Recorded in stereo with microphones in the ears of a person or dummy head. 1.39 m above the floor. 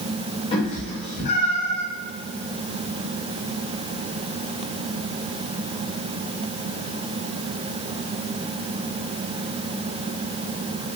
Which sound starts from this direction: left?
A cat meowing, at 0.5 s.